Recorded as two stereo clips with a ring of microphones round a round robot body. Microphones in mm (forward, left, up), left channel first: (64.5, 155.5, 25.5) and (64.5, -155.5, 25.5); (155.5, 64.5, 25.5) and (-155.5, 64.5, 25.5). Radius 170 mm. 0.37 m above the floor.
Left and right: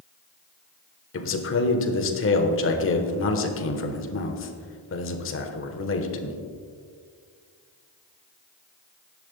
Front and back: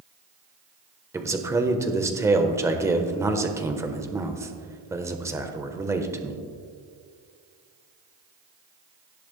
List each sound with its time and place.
1.1 s a man speaking: 105° left, 1.2 m